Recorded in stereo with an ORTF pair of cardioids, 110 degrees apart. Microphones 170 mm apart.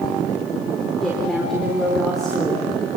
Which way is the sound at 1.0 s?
Straight ahead.